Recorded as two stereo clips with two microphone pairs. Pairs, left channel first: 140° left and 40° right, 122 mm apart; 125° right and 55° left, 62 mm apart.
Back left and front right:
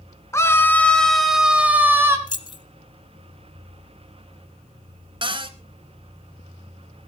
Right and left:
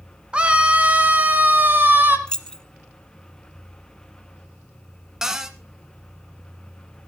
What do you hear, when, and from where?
0.3 s a scream: 105° left, 1.7 m; by 2.2 s 15° left, 2 m
2.3 s keys jangling: 160° left, 0.9 m
5.2 s a cupboard door: 25° right, 1.2 m